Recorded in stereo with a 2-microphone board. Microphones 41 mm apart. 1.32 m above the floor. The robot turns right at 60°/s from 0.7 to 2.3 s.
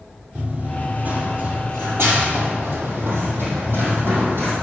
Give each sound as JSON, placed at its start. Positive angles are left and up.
{"t": 0.3, "sound": "running footsteps", "side_deg": -35, "distance_m": 2.5}